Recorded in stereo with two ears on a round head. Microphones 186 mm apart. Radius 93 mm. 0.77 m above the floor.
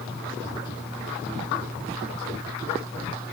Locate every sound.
Only background noise.